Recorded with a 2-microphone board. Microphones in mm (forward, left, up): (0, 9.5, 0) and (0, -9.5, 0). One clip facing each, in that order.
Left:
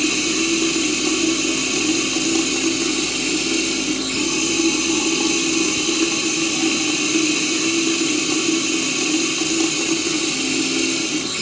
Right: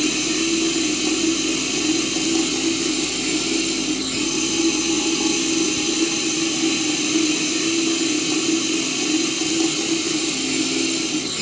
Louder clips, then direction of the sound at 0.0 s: Left 1 dB; 5° left (ahead or behind).